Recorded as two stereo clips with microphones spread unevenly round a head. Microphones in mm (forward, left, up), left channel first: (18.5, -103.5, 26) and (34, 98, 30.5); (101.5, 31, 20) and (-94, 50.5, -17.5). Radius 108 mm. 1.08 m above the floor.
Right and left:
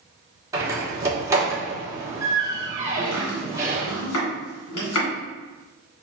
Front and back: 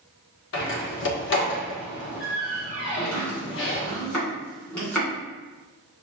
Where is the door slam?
10° left, 1.2 m.